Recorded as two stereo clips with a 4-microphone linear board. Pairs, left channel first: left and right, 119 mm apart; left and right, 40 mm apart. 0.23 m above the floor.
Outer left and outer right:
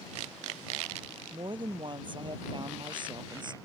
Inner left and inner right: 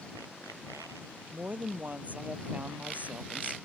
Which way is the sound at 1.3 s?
40° right (ahead or behind).